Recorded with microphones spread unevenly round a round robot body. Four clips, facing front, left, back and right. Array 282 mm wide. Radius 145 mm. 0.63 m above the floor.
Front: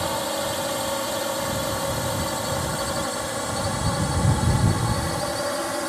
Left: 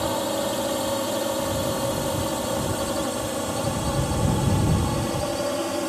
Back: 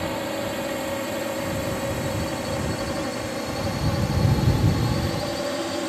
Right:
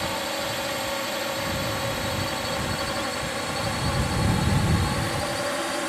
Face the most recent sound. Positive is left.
turn(degrees=135)